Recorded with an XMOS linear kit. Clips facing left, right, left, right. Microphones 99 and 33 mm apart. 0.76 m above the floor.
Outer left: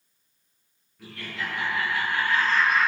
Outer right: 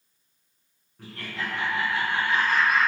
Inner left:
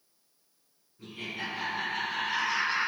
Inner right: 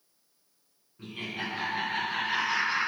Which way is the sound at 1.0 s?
40° right (ahead or behind).